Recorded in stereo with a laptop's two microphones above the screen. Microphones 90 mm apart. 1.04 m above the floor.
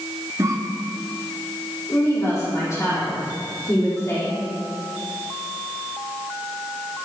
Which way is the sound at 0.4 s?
35° right (ahead or behind).